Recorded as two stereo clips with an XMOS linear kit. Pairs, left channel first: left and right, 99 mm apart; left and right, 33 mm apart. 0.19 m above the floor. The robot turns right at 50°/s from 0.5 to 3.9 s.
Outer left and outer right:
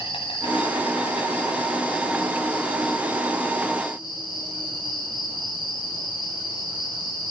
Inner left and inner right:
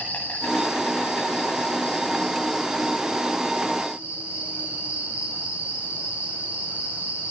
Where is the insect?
65° left, 9.5 m; by 7.3 s 125° right, 9.5 m.